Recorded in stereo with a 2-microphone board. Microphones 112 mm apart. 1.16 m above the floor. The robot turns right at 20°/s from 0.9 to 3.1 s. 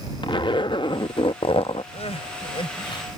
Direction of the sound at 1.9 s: 65° left (ahead or behind).